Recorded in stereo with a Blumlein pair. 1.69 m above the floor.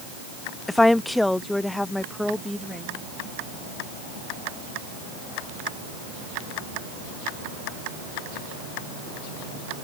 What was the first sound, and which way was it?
A woman speaking, 5° left.